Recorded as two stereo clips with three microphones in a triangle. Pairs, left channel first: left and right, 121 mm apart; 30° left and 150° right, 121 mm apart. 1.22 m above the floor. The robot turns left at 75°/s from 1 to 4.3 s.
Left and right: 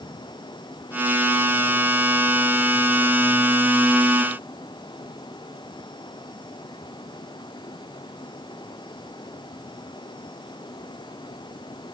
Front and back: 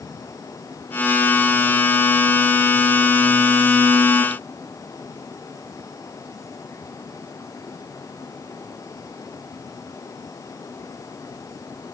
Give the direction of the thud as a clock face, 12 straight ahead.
I don't hear a thud.